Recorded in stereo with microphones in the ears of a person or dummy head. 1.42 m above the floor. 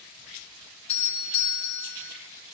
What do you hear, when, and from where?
0.9 s a doorbell: 35° left (ahead or behind), 2.5 m